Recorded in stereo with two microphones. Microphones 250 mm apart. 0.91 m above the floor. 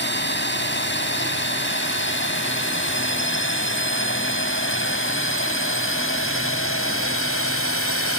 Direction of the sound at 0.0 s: 45° left (ahead or behind).